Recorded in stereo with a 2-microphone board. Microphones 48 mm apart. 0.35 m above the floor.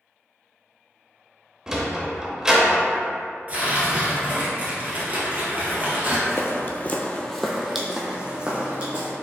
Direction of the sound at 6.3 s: 60° left (ahead or behind).